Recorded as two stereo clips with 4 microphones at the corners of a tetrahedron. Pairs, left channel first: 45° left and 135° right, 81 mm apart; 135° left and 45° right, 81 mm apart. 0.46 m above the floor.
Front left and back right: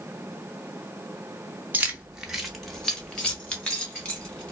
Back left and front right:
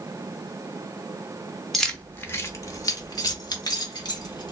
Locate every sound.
1.7 s keys jangling: 145° right, 0.7 m; by 4.5 s 115° left, 1.8 m